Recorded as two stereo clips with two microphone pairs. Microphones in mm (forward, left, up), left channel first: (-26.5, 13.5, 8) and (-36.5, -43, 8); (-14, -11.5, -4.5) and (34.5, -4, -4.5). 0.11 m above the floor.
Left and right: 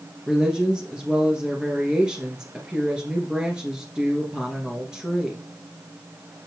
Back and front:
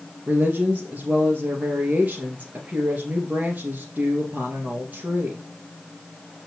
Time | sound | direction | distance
0.3 | a woman speaking | 30° right | 2 m